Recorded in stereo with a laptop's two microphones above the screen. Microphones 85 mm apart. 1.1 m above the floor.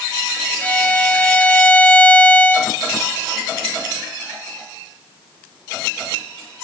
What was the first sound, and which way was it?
A violin, 15° left (ahead or behind).